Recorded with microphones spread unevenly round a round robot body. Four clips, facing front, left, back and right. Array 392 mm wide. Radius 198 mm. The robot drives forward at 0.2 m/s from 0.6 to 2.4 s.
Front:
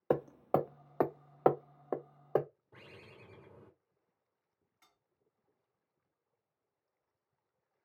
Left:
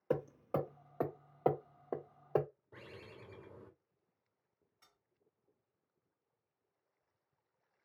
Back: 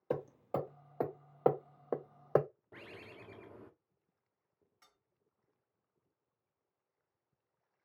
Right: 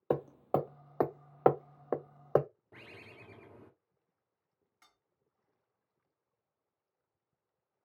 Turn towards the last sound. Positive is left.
turn(degrees=-95)